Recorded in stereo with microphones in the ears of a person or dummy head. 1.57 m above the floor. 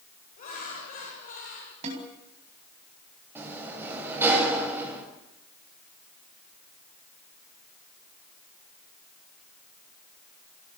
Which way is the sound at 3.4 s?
15° right (ahead or behind).